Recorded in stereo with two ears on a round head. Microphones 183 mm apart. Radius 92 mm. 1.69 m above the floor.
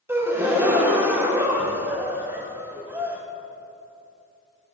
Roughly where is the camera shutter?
No camera shutter in this recording.